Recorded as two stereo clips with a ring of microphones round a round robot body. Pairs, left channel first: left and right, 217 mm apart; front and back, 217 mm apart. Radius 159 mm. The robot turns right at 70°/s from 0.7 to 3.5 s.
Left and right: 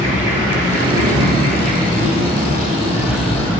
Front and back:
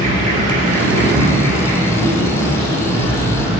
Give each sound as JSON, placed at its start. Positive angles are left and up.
{"t": 0.0, "sound": "an insect", "azimuth_deg": -175, "distance_m": 5.0}